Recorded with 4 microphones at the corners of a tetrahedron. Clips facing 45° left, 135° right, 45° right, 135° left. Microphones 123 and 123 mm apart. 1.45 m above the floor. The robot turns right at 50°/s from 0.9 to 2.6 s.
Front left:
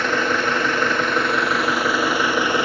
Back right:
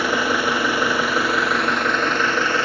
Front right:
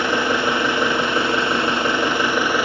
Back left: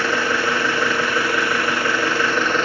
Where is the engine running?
75° right, 0.7 m; by 2.6 s 10° left, 0.7 m.